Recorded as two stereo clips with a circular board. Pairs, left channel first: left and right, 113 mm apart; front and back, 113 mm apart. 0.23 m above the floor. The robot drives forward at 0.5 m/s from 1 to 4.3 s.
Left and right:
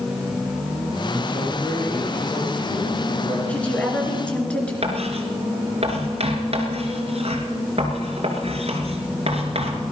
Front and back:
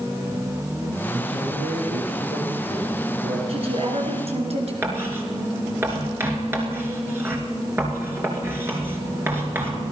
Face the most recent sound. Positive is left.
turn(degrees=-110)